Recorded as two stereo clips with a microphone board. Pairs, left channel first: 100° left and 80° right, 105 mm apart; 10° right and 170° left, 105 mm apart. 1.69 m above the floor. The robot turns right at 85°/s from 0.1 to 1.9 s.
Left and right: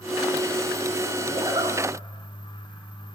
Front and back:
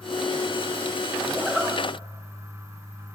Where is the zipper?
120° right, 0.9 m; by 1.8 s 85° right, 0.9 m.